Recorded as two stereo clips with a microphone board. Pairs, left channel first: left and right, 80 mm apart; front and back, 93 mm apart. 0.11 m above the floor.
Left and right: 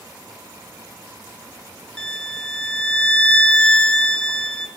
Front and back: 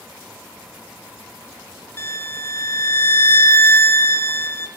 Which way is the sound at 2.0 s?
25° left.